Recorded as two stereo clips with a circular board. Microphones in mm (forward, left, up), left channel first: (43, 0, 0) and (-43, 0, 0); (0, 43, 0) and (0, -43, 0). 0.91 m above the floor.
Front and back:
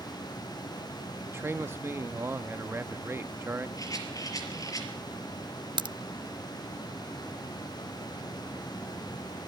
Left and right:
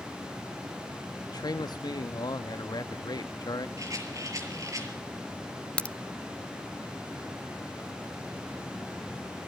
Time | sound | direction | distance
1.3 | a man speaking | 120° left | 1.0 m
3.8 | a rattle | 45° right | 5 m
5.8 | a crack | 165° left | 0.6 m